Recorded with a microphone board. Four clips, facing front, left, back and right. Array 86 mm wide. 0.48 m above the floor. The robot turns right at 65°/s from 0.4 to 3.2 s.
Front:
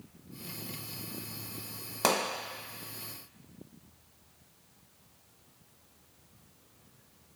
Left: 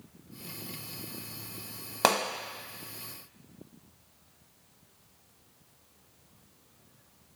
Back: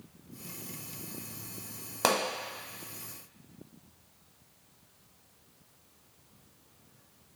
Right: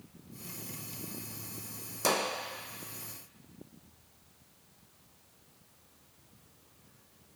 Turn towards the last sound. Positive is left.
turn(degrees=170)